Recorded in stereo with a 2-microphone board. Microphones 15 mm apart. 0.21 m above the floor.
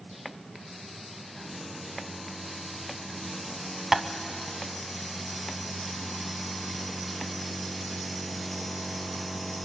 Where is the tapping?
30° right (ahead or behind), 0.7 m.